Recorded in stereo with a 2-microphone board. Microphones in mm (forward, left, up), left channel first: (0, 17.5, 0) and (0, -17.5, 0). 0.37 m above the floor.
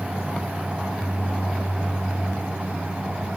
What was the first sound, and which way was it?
Only background noise.